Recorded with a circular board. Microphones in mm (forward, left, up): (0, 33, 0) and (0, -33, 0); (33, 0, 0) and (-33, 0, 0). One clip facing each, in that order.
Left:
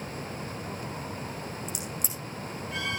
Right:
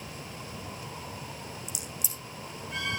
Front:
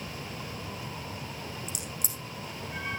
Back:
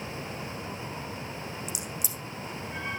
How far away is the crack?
About 4.5 m.